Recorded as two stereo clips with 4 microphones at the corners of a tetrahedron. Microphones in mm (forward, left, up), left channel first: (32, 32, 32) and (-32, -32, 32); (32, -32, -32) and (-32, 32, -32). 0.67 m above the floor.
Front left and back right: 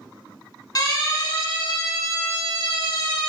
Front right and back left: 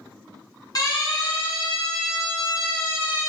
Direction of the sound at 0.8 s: Straight ahead.